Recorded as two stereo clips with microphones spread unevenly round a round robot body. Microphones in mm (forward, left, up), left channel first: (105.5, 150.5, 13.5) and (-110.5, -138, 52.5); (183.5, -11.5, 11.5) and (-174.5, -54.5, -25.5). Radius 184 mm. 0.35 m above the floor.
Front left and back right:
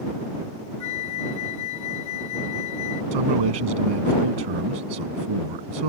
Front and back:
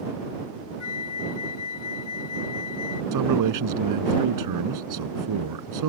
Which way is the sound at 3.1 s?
140° right.